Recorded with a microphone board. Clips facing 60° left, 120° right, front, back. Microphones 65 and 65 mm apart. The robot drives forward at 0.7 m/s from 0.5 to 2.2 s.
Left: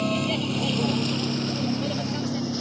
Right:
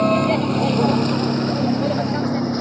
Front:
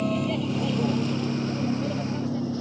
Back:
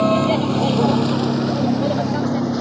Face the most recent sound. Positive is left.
turn(degrees=-170)